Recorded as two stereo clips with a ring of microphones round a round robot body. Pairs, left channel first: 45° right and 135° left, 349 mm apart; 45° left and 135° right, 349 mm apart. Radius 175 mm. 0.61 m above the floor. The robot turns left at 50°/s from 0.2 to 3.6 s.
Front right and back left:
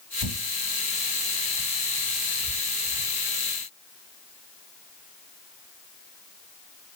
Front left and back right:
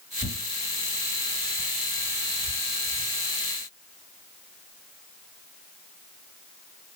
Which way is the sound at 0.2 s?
115° left.